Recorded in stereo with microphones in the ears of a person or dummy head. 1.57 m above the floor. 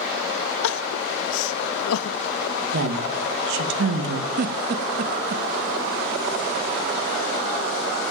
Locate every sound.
0.6 s crying: 80° left, 0.5 m
2.7 s a woman speaking: 80° right, 2.0 m
4.4 s a giggle: 50° right (ahead or behind), 0.6 m